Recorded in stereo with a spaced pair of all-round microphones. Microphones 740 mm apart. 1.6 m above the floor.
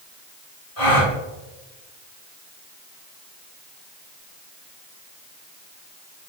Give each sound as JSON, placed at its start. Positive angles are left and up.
{"t": 0.8, "sound": "a gasp", "side_deg": 30, "distance_m": 1.1}